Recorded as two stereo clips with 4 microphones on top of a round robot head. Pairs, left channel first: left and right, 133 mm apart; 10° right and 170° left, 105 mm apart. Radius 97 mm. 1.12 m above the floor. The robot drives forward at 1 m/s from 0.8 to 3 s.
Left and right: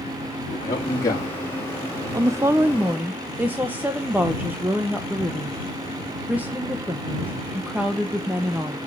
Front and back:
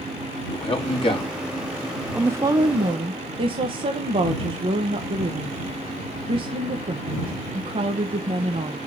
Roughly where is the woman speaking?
Behind right.